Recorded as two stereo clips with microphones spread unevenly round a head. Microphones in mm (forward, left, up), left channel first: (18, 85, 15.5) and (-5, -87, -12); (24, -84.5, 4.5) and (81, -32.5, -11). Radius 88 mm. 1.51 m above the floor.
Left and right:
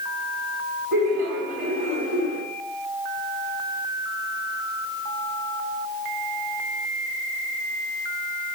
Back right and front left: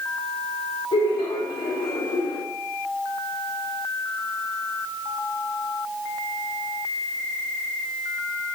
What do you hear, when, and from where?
0.9 s laughter: 145° right, 4 m